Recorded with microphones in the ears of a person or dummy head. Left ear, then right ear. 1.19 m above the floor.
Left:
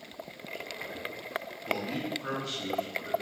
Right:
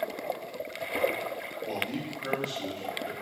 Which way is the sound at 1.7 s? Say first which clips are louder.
Left 2 dB; centre (ahead or behind).